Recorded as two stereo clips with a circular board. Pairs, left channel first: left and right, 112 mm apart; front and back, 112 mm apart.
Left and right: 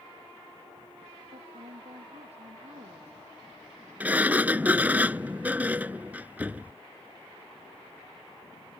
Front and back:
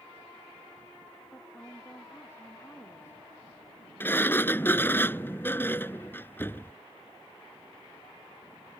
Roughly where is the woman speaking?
Right.